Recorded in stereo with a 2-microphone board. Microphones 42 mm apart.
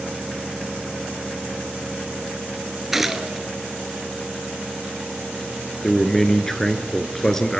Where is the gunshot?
5° right (ahead or behind), 1.0 m.